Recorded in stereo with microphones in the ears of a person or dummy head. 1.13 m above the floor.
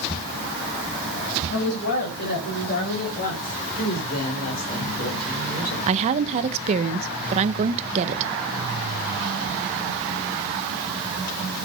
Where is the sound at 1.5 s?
70° left (ahead or behind), 6 m; by 3.6 s 40° left (ahead or behind), 4 m.